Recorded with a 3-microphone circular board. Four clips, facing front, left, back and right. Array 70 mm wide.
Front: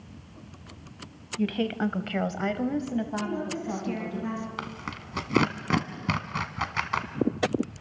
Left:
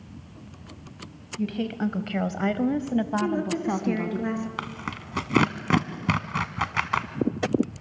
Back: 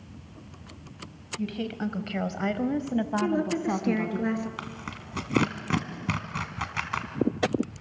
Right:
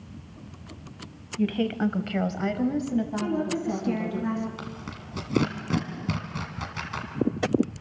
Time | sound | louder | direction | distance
1.4 | a woman speaking | right 2 dB, front 4 dB | 30° right | 1.3 m
3.2 | a woman speaking | left 1 dB, back 5 dB | 160° left | 4 m
4.6 | tearing paper | left 5 dB, front 2 dB | 70° left | 1.3 m